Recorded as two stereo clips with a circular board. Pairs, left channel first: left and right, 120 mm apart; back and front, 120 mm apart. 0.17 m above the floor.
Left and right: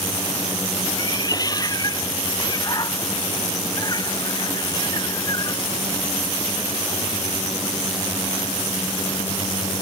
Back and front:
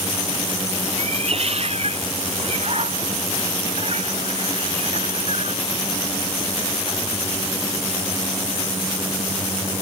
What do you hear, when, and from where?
1.0 s a cat meowing: 30° left; by 5.6 s 35° left